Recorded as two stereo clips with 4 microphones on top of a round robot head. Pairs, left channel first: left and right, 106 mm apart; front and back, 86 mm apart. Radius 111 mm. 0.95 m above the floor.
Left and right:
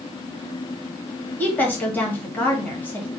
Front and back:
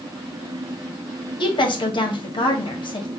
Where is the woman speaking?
15° left, 1.3 m.